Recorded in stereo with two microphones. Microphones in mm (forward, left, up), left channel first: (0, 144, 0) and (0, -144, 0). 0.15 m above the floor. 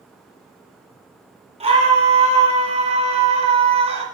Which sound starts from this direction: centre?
A scream, at 1.6 s.